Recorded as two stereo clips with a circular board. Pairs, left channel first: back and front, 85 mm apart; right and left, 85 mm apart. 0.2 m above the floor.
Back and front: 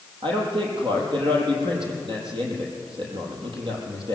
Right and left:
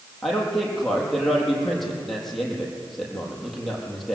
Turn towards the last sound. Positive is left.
turn(degrees=-5)